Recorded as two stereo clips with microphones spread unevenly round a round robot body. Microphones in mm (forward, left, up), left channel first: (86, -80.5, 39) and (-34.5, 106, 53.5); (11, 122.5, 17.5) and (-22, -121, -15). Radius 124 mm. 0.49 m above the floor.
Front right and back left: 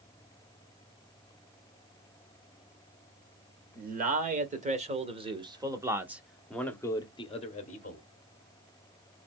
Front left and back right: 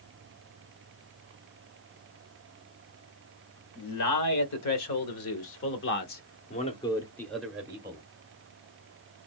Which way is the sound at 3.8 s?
75° left.